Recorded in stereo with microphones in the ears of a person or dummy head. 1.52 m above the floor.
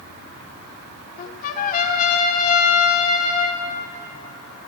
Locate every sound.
1.2 s a trumpet: 55° left (ahead or behind), 0.8 m